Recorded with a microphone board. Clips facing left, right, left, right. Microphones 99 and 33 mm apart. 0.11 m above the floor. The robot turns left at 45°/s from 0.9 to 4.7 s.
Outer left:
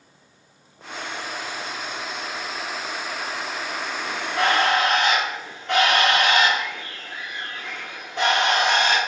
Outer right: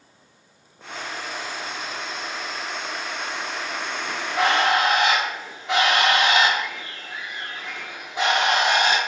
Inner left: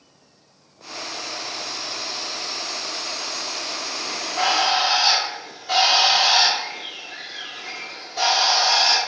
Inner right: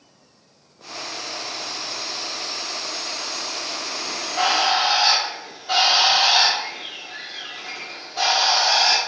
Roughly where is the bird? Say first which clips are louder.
Even, inner right 1 dB; right.